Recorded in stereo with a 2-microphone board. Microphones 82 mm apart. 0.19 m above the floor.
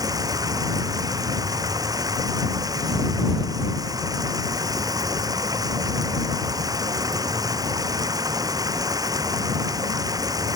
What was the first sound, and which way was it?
Running water, 45° right (ahead or behind).